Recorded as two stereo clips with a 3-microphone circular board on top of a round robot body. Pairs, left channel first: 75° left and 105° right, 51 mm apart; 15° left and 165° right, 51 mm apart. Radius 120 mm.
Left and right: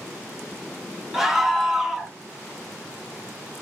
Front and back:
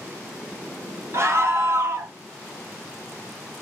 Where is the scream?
170° left, 1.1 m.